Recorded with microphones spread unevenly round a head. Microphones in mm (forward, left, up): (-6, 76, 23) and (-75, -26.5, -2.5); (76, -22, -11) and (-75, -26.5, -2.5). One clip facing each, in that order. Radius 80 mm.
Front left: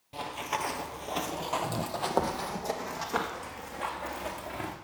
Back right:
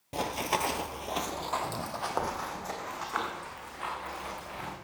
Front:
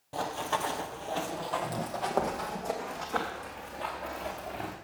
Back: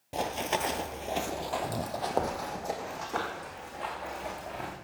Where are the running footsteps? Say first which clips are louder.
Back right 3 dB, back 1 dB; 135° right, 1.1 m; by 4.8 s 95° left, 4 m.